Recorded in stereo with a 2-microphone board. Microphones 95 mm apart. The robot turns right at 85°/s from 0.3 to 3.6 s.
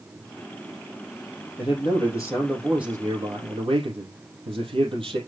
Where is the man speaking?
90° left, 4.5 m; by 5.2 s 95° right, 4.5 m.